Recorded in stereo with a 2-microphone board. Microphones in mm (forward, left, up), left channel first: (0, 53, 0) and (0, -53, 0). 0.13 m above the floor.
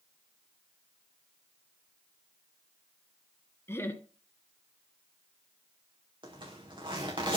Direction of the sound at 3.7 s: 20° left (ahead or behind).